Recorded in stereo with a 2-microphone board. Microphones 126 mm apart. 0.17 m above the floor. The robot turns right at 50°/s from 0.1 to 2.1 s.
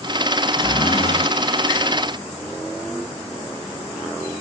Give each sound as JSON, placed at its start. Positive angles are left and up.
{"t": 0.6, "sound": "a zipper", "azimuth_deg": 35, "distance_m": 0.7}